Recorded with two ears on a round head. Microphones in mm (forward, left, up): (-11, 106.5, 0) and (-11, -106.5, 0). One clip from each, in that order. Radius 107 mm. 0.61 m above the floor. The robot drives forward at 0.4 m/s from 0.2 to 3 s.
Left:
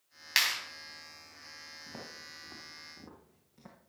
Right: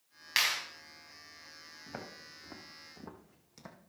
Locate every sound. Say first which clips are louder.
0.4 s a clap: left 1 dB; 20° left (ahead or behind), 3 m
1.9 s footsteps: right 3 dB; 40° right (ahead or behind), 3.5 m; by 3.8 s 75° right (ahead or behind), 2 m